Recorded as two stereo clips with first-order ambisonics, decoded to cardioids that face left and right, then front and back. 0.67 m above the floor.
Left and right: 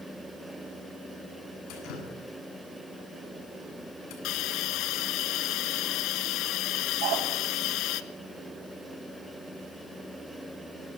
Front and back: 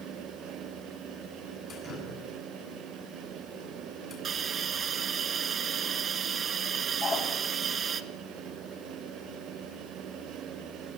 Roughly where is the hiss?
Behind left.